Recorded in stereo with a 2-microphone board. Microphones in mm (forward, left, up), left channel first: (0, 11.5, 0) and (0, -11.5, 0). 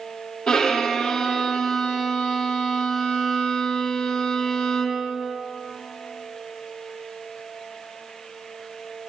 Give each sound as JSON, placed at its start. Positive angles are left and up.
{"t": 0.5, "sound": "a violin", "side_deg": 30, "distance_m": 5.0}